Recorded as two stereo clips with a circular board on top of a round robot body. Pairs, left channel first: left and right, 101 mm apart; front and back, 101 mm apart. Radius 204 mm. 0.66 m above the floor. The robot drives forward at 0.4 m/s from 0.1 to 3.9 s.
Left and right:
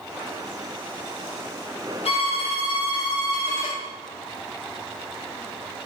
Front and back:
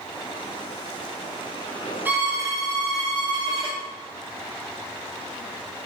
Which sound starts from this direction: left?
A violin, at 2.0 s.